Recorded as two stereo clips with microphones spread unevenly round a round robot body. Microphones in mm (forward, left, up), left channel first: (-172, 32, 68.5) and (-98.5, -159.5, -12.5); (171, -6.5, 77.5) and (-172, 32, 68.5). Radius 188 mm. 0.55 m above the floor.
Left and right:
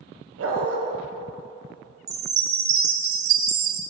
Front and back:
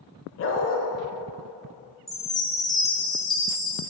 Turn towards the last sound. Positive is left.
turn(degrees=-95)